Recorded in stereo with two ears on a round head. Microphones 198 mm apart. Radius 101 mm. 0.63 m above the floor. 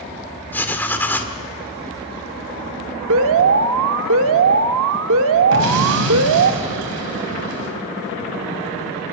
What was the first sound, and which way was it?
Writing, 10° left (ahead or behind).